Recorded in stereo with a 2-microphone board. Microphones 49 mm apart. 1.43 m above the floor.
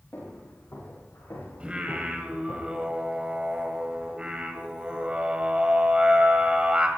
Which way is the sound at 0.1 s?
55° left (ahead or behind).